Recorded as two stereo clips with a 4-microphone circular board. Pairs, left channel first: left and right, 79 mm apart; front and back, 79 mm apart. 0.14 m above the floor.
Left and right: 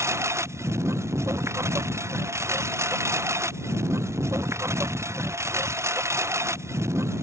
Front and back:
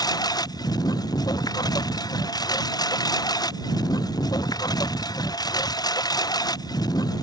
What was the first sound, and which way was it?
A lawn mower, 35° right.